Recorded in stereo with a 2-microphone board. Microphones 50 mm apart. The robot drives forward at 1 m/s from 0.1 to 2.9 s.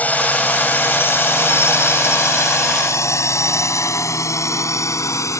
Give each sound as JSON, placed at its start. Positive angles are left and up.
{"t": 0.0, "sound": "a drone", "side_deg": 30}